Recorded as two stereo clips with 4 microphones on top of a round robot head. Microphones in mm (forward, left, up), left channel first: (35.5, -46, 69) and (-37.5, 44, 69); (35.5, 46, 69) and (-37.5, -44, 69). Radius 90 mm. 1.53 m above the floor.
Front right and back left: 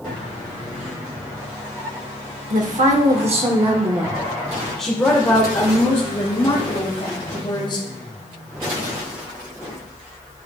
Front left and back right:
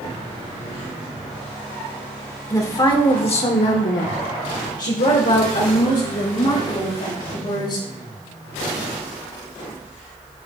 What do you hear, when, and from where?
2.5 s a woman speaking: 115° left, 1.3 m; by 7.8 s 5° left, 3.5 m